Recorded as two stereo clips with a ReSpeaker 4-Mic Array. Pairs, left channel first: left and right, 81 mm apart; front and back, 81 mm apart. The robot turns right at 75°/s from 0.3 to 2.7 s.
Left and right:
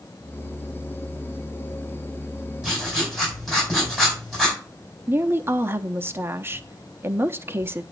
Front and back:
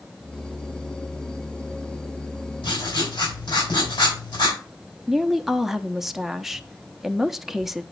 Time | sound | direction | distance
2.6 | writing | straight ahead | 5 m
5.1 | a woman speaking | 100° right | 0.6 m